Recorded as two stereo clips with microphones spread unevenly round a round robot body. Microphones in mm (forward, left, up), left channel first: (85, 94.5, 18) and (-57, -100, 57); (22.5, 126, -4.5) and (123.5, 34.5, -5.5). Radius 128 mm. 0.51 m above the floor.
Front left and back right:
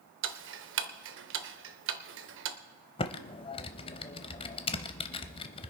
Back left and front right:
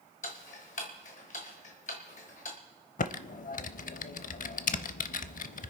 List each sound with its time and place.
0.2 s ticking: 165° right, 0.9 m
3.0 s typing on a keyboard: 125° left, 0.6 m